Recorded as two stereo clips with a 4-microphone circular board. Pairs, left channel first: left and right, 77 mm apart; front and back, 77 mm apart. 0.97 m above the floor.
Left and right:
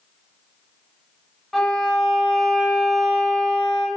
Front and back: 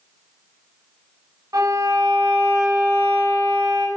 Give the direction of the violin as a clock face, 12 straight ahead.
6 o'clock.